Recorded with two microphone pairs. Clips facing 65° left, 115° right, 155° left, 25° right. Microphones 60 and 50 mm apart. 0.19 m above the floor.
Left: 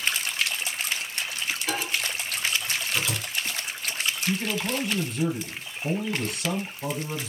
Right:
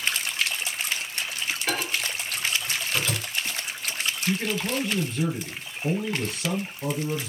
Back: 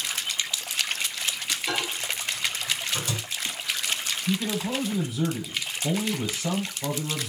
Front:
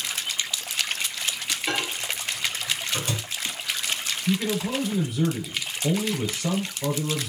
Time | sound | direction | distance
1.7 | a microwave | 80° right | 2.5 m
4.3 | a man speaking | 65° right | 3.5 m